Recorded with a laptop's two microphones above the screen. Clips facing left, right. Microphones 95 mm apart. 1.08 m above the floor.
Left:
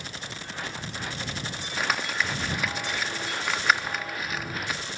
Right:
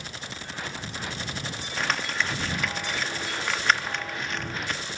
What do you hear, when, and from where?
1.8 s crumpling: 5° left (ahead or behind)